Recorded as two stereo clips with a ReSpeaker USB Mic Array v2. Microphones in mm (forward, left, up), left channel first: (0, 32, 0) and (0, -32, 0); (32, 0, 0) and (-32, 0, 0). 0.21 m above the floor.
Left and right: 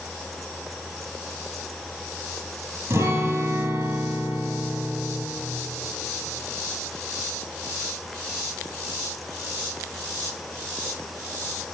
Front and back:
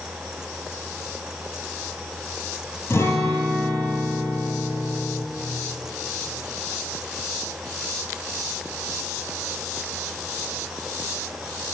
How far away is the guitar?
About 1.5 m.